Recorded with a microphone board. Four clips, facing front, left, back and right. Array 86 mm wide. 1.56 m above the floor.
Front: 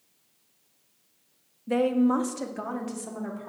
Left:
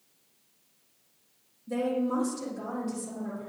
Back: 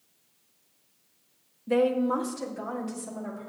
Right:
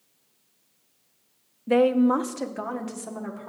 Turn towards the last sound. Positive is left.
turn(degrees=-60)